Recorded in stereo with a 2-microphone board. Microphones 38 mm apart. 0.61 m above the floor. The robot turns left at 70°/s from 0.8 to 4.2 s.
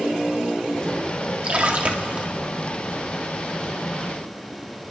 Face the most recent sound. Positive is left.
turn(degrees=100)